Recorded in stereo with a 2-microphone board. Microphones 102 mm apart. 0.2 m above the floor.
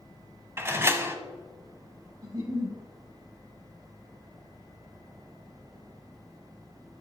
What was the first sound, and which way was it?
A door slam, 25° right (ahead or behind).